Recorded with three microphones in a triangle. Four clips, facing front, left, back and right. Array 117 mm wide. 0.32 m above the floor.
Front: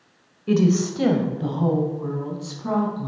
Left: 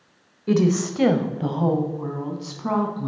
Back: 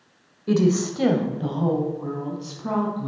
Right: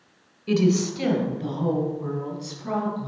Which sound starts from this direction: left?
A woman speaking, at 0.5 s.